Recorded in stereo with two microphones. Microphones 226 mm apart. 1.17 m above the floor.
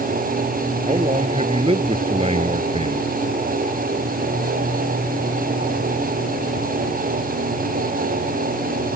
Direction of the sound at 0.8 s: 25° right (ahead or behind).